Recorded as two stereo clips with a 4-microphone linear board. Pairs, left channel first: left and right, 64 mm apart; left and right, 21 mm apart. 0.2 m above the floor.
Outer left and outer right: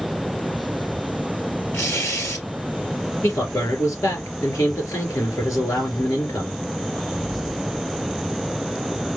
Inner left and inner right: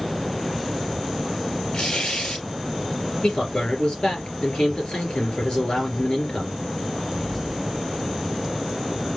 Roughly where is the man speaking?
Left.